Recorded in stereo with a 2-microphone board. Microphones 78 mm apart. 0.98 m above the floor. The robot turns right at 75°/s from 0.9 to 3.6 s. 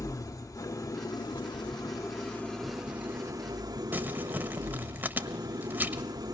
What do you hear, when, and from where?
0.0 s an engine running: 45° left, 1.7 m; by 6.3 s 115° right, 1.7 m
3.9 s crumpling: 25° right (ahead or behind), 1.2 m